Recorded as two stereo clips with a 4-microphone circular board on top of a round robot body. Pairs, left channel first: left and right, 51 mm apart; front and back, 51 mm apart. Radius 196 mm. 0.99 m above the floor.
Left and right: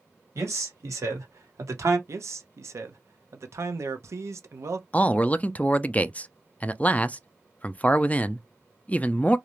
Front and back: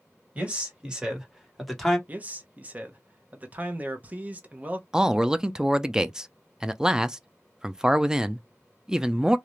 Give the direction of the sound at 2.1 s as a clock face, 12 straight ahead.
4 o'clock.